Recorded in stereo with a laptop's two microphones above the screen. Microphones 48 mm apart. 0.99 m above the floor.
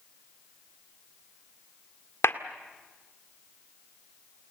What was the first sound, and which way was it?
A clap, 60° left (ahead or behind).